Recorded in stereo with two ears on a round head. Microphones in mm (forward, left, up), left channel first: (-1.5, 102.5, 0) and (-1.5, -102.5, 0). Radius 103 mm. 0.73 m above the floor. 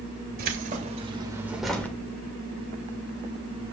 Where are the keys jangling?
45° right (ahead or behind), 2.5 m; by 1.9 s 10° left (ahead or behind), 1.9 m.